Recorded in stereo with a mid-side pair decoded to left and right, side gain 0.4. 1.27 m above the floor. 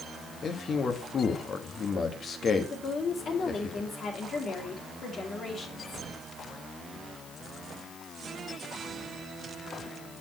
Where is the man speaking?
55° left, 1.6 m.